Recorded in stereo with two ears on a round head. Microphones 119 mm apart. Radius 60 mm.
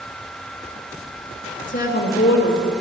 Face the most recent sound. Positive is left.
turn(degrees=80)